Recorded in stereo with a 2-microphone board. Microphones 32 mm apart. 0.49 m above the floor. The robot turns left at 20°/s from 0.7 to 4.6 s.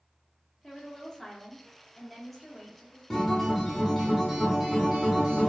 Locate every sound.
0.6 s a woman speaking: 15° left (ahead or behind), 0.7 m; by 3.0 s centre (ahead or behind), 0.7 m
3.1 s a guitar: 15° left (ahead or behind), 0.7 m; by 5.5 s 15° right (ahead or behind), 0.7 m